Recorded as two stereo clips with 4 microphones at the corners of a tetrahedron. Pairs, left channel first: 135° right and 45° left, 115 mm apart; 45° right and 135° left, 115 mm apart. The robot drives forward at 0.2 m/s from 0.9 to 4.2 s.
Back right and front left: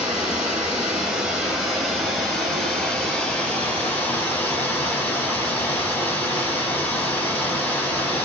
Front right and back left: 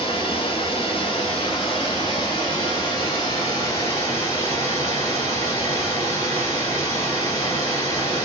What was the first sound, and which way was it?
Running water, 35° right.